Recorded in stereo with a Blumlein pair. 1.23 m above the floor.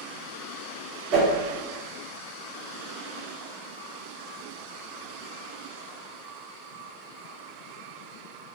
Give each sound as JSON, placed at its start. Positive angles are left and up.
{"t": 1.1, "sound": "a whoosh", "azimuth_deg": -45, "distance_m": 1.7}